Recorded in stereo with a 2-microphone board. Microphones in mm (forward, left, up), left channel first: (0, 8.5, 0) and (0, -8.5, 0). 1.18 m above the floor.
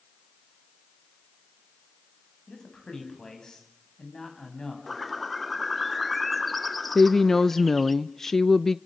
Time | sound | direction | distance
2.5 | a man speaking | 35° left (ahead or behind) | 7 m
4.9 | a bird | 5° left (ahead or behind) | 0.8 m
7.0 | a woman speaking | 20° left (ahead or behind) | 0.5 m